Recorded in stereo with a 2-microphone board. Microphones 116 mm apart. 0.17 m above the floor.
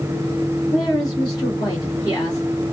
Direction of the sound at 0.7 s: 35° left (ahead or behind).